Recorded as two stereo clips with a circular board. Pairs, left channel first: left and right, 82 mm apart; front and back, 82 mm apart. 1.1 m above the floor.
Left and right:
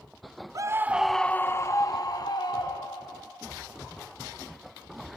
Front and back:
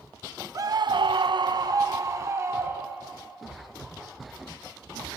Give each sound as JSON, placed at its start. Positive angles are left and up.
{"t": 0.6, "sound": "a scream", "azimuth_deg": -135, "distance_m": 0.6}